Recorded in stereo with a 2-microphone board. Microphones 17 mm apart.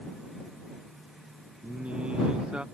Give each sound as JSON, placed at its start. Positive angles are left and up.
{"t": 1.6, "sound": "singing", "side_deg": -80}